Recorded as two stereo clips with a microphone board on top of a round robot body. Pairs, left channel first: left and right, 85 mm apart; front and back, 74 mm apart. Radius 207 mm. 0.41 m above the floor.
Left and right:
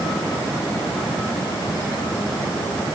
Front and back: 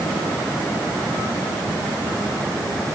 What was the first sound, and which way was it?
Only background noise.